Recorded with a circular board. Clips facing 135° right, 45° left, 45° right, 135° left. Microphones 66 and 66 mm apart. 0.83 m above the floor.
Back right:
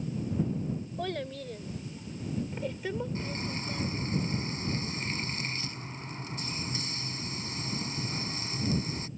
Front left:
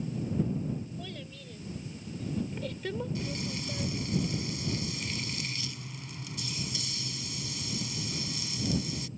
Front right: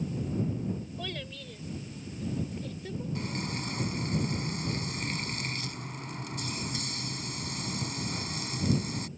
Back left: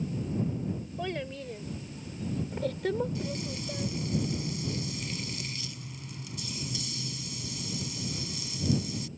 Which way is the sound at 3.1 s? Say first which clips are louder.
Even, even; 80° right.